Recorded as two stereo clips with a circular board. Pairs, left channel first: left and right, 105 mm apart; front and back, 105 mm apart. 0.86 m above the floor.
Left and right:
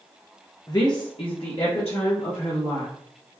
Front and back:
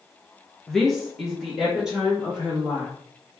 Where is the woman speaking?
85° left, 0.5 m; by 2.9 s 100° left, 1.6 m.